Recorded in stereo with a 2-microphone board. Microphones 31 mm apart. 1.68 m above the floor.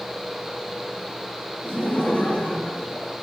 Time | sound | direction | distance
1.6 | laughter | 65° left (ahead or behind) | 4 m